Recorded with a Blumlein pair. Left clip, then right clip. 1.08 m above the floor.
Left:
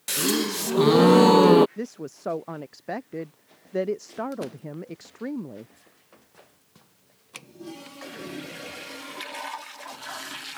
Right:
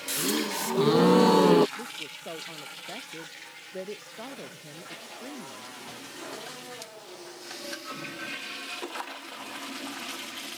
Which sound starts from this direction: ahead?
A gasp, at 0.1 s.